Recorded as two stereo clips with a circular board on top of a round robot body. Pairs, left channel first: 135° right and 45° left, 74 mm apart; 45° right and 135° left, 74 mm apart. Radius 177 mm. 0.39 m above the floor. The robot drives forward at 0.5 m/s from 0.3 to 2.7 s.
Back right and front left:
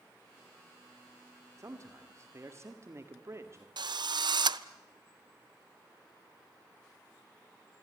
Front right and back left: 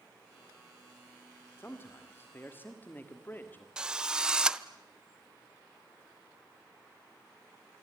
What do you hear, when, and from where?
1.6 s a man speaking: 5° left, 2.5 m; by 3.7 s 10° left, 1.9 m
3.8 s a drill: 55° left, 1.0 m